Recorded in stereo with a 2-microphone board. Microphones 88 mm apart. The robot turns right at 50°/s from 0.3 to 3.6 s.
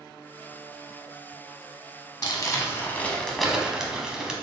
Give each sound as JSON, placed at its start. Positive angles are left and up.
{"t": 2.2, "sound": "crumpling", "azimuth_deg": 120, "distance_m": 0.8}